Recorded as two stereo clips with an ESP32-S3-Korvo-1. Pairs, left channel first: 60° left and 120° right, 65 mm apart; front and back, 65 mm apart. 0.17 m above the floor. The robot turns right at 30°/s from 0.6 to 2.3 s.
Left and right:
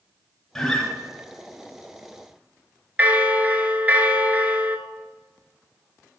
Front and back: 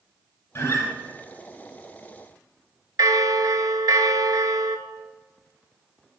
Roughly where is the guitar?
Ahead right.